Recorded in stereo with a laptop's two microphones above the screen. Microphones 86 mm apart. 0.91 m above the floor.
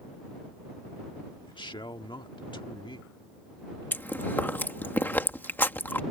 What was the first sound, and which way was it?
A man speaking, 65° left (ahead or behind).